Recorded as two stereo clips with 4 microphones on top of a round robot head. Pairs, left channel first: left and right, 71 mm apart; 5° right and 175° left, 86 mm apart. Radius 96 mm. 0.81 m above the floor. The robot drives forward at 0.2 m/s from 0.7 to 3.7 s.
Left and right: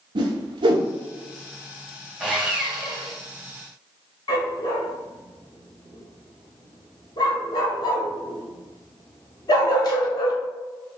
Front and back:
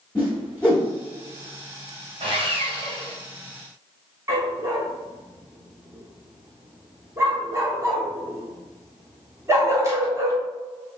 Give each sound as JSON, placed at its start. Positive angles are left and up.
{"t": 0.1, "sound": "a whoosh", "azimuth_deg": -85, "distance_m": 0.7}
{"t": 2.2, "sound": "sawing", "azimuth_deg": -175, "distance_m": 1.4}
{"t": 4.3, "sound": "a dog barking", "azimuth_deg": 115, "distance_m": 0.7}